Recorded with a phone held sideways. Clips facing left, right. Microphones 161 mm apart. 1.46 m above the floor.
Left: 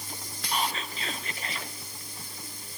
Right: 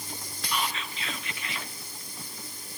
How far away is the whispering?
About 1.3 m.